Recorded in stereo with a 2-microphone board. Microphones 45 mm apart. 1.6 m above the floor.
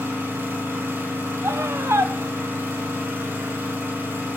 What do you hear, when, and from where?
0.0 s an engine running: 75° right (ahead or behind), 3.5 m
1.4 s a scream: 75° right (ahead or behind), 0.7 m